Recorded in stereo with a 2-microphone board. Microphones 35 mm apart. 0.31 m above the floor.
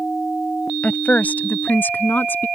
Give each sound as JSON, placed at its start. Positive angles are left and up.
{"t": 0.8, "sound": "a woman speaking", "side_deg": 40}